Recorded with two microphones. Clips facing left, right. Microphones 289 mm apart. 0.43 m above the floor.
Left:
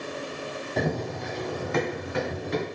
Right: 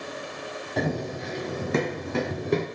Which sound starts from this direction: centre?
Running footsteps, at 0.8 s.